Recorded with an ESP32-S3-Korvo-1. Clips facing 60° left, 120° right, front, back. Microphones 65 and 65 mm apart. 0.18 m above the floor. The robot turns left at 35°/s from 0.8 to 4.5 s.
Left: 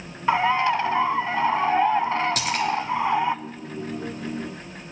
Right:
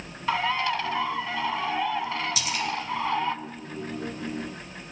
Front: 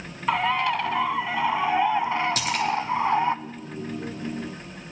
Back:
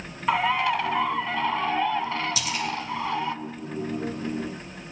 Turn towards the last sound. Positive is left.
turn(degrees=-45)